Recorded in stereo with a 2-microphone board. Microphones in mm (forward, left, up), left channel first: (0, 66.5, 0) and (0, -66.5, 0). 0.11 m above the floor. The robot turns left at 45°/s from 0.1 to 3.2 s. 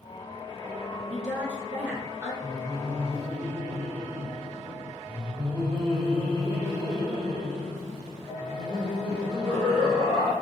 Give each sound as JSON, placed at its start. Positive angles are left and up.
{"t": 1.1, "sound": "a woman speaking", "side_deg": -5, "distance_m": 1.1}
{"t": 2.4, "sound": "laughter", "azimuth_deg": -25, "distance_m": 1.7}